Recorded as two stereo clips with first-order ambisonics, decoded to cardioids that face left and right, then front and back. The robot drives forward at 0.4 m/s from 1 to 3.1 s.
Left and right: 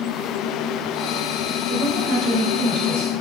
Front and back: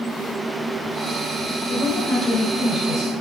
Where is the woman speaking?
55° right, 3.5 m; by 3.1 s 65° right, 3 m.